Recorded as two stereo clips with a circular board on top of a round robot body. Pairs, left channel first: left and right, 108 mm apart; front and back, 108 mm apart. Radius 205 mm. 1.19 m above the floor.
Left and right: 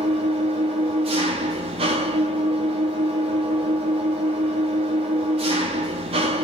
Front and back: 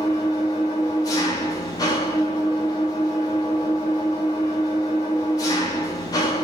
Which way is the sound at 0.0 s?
60° right.